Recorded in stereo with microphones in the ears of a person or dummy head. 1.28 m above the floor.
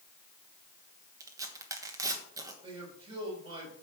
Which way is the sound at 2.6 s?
30° right (ahead or behind).